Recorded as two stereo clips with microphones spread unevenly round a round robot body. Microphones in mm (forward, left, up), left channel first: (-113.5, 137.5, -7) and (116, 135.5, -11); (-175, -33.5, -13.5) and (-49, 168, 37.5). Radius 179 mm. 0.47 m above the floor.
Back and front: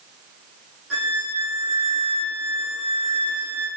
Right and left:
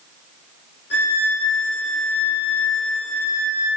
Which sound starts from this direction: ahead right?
A violin, at 0.9 s.